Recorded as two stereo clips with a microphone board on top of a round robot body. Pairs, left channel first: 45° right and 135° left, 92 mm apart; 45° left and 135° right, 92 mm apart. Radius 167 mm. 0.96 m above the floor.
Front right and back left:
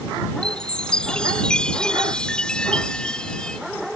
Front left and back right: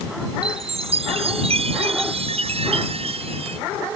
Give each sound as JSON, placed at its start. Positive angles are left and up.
{"t": 0.4, "sound": "a chime", "azimuth_deg": -125}